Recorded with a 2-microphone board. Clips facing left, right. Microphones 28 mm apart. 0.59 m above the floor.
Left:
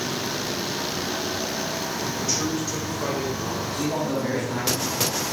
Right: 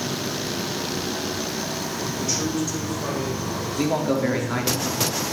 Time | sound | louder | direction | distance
2.2 | a man speaking | right 2 dB | 5° right (ahead or behind) | 1.5 m
3.8 | a man speaking | right 5 dB | 35° right (ahead or behind) | 1.0 m